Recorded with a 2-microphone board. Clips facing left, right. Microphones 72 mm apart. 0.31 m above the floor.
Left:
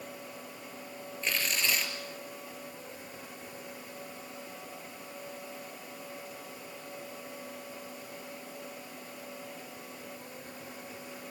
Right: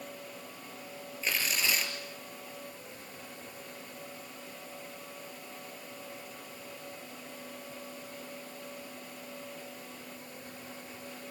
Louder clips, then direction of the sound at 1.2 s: Even; 5° right (ahead or behind).